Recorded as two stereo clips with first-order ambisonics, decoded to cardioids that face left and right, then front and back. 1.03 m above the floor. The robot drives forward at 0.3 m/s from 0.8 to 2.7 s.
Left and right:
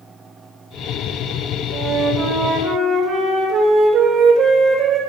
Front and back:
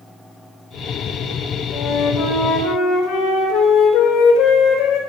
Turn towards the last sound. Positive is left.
turn(degrees=-35)